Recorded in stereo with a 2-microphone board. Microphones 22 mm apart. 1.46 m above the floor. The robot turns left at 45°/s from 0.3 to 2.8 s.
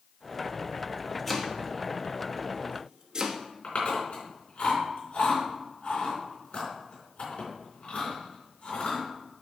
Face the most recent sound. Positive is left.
turn(degrees=65)  # may be behind; listen again after turning